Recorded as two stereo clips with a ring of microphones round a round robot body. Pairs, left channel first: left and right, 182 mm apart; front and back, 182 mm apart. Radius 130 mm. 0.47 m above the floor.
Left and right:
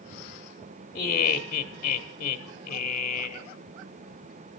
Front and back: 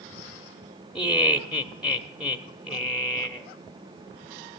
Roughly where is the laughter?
Left.